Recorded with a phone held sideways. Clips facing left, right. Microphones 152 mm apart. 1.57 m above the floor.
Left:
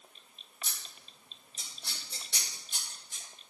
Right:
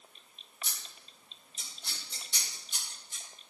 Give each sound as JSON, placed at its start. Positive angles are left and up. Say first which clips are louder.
{"t": 0.6, "sound": "scissors", "louder": "even", "side_deg": 75, "distance_m": 3.5}